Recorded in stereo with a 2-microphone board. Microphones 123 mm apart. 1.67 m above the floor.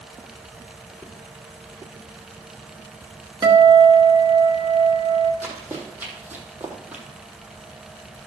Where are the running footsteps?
15° right (ahead or behind), 4 m; by 7.0 s 10° right (ahead or behind), 2.5 m.